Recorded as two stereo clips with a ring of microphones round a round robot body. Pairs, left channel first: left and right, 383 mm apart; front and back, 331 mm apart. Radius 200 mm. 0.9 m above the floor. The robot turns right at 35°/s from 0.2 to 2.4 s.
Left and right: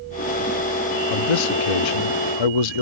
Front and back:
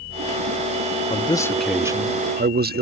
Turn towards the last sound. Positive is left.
turn(degrees=115)